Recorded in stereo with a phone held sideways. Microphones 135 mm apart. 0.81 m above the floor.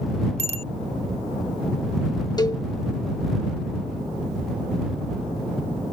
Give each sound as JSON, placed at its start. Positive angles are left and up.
{"t": 0.4, "sound": "a bicycle bell", "side_deg": -55}
{"t": 2.4, "sound": "a cowbell", "side_deg": 30}